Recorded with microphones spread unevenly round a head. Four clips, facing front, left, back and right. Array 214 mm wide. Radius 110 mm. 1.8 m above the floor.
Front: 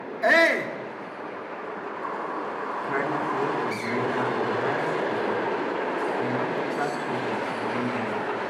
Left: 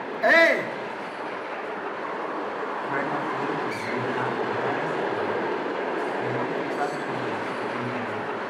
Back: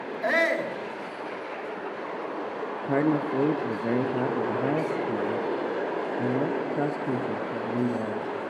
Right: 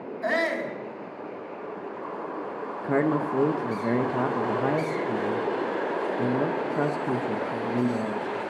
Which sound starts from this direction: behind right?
A man speaking, at 2.8 s.